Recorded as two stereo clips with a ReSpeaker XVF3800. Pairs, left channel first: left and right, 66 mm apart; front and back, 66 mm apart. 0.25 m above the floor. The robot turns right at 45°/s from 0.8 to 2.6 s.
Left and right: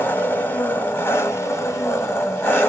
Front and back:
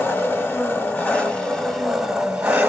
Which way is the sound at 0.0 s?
45° left.